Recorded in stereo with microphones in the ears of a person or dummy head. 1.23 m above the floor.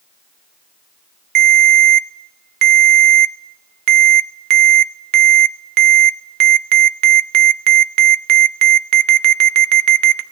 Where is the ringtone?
50° right (ahead or behind), 0.8 m.